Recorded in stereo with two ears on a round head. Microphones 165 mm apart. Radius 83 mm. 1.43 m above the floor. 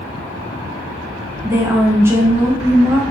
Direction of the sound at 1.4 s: 15° right (ahead or behind).